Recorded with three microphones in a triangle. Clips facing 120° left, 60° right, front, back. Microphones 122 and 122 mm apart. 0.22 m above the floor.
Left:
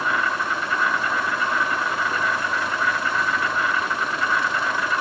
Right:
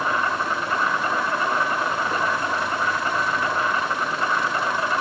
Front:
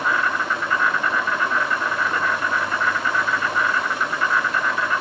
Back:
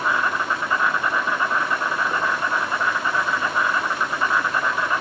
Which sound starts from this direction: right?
An insect, at 0.0 s.